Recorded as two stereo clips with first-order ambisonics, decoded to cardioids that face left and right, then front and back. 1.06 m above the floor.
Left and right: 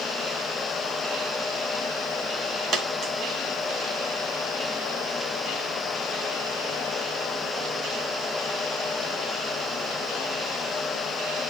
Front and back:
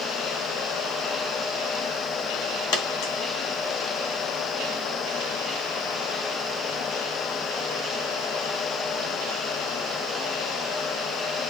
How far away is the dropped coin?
About 2.5 m.